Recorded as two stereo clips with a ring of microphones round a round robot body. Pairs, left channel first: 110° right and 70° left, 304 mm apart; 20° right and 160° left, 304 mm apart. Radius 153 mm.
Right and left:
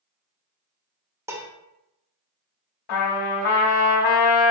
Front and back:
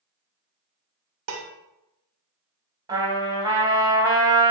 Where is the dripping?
I don't hear dripping.